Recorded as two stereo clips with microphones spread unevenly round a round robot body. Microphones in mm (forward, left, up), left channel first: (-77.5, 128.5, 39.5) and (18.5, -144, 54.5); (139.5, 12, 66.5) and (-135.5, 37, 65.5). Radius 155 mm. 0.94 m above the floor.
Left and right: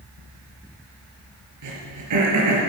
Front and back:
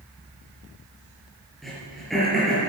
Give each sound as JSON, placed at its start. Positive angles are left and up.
{"t": 1.6, "sound": "throat clearing", "azimuth_deg": -95, "distance_m": 5.0}